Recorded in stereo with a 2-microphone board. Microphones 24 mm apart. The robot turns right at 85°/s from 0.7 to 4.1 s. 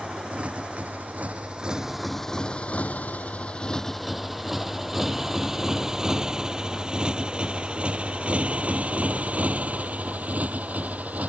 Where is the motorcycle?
55° right (ahead or behind); by 11.3 s 85° right.